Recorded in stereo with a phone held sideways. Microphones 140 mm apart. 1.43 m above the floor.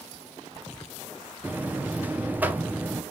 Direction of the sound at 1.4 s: 15° right (ahead or behind).